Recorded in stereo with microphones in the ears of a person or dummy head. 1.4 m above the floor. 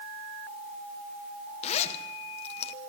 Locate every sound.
1.6 s a zipper: 40° left (ahead or behind), 1.3 m